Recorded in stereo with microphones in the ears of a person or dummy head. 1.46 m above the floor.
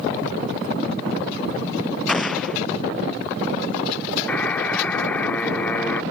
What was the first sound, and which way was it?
An explosion, centre (ahead or behind).